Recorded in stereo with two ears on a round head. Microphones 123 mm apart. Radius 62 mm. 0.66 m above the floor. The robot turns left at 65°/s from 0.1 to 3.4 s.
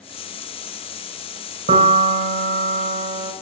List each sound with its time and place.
1.7 s a piano: 45° right, 1.6 m; by 3.3 s 155° right, 1.6 m